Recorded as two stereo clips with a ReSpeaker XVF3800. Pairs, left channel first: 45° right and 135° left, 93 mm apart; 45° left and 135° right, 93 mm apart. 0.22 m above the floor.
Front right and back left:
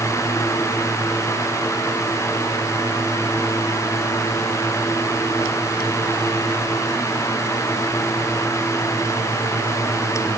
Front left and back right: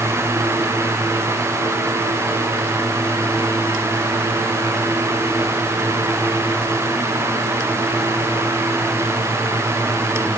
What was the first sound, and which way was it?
Only background noise.